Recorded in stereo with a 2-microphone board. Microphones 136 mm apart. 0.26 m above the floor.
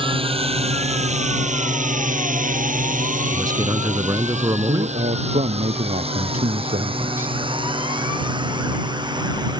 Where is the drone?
40° right (ahead or behind); by 9.6 s 30° right (ahead or behind).